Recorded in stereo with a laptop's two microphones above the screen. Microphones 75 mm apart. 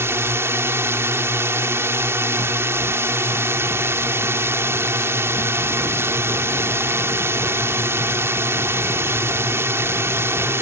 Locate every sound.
0.0 s a drone: 35° right (ahead or behind)